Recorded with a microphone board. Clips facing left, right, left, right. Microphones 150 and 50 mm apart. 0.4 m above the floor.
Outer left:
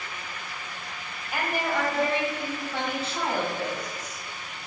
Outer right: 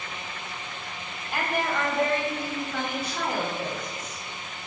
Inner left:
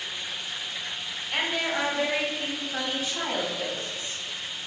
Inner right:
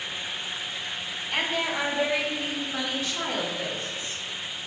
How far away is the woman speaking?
About 2 m.